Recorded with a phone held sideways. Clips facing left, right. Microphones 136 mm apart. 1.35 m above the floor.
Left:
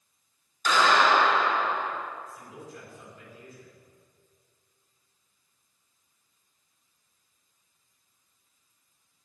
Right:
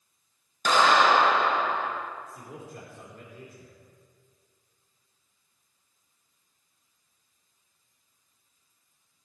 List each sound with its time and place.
0.7 s a clap: 55° right (ahead or behind), 6.5 m
2.3 s a man speaking: 55° right (ahead or behind), 5.5 m